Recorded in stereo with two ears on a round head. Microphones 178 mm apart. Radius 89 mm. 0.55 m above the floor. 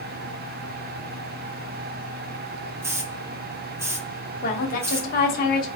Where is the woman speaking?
45° left (ahead or behind), 1.2 m.